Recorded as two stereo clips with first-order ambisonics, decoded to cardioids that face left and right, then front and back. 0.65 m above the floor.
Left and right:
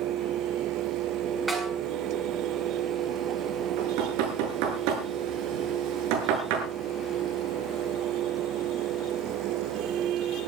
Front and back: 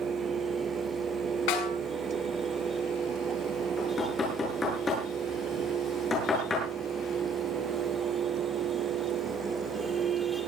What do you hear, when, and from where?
1.5 s a snare drum: 5° right, 6.5 m
3.8 s knocking: 70° right, 8.5 m